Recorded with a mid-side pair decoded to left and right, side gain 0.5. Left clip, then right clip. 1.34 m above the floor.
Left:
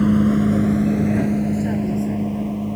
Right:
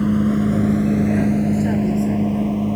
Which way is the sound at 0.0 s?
15° left.